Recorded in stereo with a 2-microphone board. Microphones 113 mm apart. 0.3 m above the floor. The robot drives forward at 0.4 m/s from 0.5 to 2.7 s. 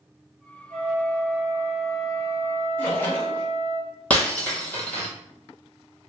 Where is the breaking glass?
10° left (ahead or behind), 0.8 m.